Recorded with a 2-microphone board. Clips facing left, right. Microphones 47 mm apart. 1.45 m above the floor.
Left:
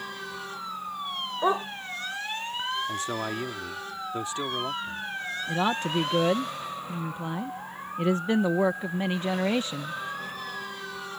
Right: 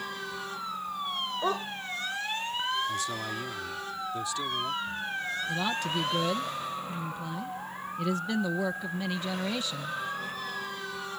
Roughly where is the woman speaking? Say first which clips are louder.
Left 6 dB; left.